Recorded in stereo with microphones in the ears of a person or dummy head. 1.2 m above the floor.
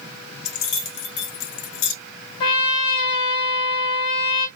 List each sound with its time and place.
0.5 s keys jangling: 70° left (ahead or behind), 1.5 m
2.4 s a trumpet: 20° left (ahead or behind), 0.9 m